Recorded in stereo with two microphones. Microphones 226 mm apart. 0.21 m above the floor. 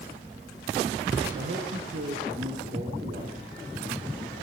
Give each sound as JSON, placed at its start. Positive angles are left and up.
{"t": 1.3, "sound": "a man speaking", "side_deg": -55, "distance_m": 3.5}